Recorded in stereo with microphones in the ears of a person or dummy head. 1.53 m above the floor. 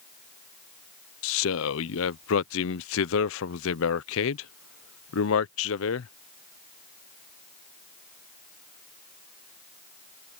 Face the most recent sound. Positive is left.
turn(degrees=65)  # may be behind; listen again after turning